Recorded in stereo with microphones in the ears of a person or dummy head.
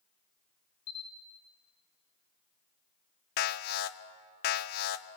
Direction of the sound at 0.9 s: 60° left (ahead or behind).